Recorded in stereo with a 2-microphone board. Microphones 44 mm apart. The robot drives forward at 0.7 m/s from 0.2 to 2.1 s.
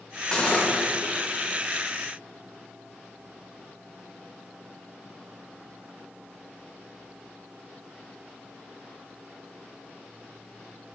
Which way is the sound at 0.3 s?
25° left (ahead or behind).